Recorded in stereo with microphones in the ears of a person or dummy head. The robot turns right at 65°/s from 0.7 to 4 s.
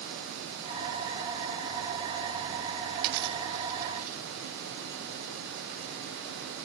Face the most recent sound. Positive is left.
turn(degrees=-45)  # may be behind; listen again after turning